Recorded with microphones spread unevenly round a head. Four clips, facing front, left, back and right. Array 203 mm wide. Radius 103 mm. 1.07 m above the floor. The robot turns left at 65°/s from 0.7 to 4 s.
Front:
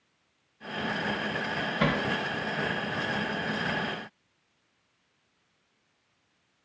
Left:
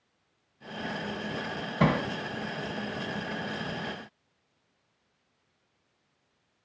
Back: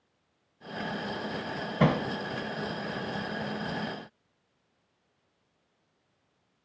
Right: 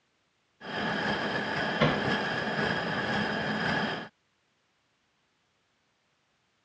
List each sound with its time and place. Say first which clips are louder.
1.8 s hammering: left 2 dB, back 3 dB; 140° left, 1.8 m; by 2.0 s 120° left, 1.8 m